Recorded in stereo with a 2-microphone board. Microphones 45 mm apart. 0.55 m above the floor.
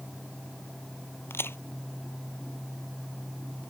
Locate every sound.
1.3 s a crack: 65° left (ahead or behind)